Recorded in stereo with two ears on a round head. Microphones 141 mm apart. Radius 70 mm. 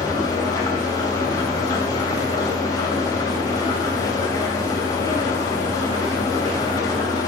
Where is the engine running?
25° left (ahead or behind), 2.5 m.